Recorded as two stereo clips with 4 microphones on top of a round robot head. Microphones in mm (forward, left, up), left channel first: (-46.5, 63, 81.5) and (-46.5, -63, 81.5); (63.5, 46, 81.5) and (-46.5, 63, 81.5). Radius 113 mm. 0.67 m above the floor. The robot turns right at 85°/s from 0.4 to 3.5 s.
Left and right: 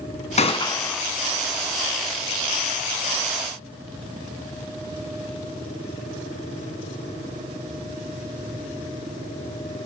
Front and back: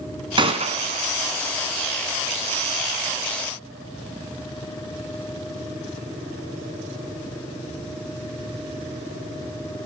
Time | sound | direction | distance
0.4 | a gunshot | 125° left | 3.5 m